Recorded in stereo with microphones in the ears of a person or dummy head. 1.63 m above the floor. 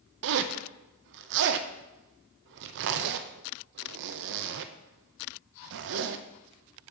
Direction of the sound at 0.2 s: 65° right (ahead or behind).